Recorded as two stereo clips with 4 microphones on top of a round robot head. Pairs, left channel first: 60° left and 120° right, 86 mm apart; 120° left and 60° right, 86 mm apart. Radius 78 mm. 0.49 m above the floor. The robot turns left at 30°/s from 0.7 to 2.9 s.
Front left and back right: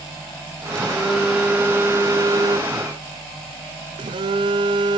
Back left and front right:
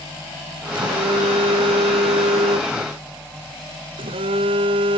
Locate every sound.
0.7 s a phone buzzing: 25° right, 1.0 m; by 5.0 s 90° right, 1.0 m